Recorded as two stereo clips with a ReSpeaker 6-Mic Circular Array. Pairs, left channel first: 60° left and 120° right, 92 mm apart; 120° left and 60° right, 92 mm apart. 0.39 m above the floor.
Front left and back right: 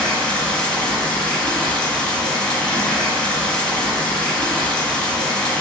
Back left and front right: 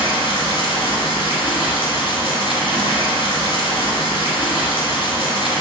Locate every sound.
0.0 s running water: 140° left, 1.0 m